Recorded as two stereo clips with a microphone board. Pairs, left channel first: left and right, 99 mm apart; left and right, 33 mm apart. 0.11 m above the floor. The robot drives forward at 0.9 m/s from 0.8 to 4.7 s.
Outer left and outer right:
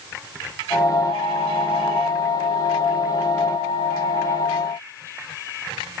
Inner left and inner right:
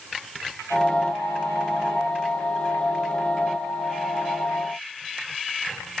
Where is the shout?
No shout in this recording.